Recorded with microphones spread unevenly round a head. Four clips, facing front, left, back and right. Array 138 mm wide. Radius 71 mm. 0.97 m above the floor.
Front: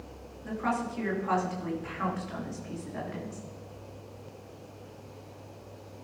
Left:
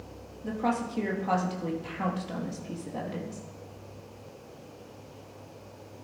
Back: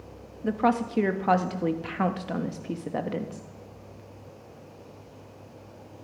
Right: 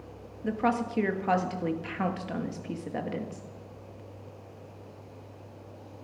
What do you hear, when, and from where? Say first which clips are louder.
0.4 s a woman speaking: right 2 dB, back 7 dB; 160° right, 1.1 m